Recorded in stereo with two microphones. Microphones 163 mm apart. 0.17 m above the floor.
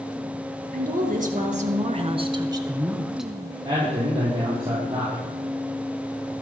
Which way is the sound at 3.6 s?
35° right (ahead or behind).